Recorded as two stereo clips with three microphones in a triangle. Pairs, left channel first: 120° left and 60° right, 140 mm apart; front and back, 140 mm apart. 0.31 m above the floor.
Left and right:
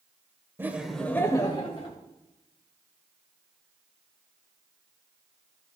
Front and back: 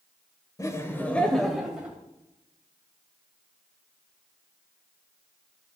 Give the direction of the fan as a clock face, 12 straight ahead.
I don't hear a fan.